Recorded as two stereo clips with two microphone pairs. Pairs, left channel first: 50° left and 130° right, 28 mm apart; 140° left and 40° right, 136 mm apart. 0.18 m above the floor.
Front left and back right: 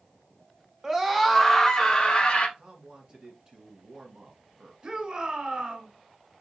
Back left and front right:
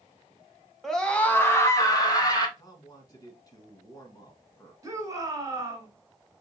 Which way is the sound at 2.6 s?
170° right.